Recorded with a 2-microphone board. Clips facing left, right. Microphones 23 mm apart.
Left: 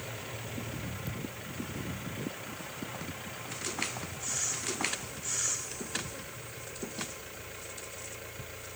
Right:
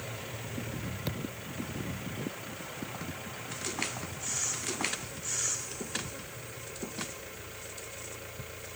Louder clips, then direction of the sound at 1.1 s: Right 2 dB; 75° right (ahead or behind).